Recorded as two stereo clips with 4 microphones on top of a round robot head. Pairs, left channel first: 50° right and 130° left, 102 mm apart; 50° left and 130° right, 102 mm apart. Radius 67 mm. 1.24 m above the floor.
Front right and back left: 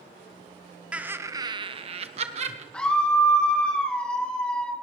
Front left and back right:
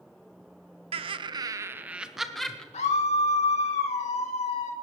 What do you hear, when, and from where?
0.9 s laughter: 150° right, 1.0 m; by 2.6 s 130° left, 1.6 m
2.7 s a scream: 35° left, 2.5 m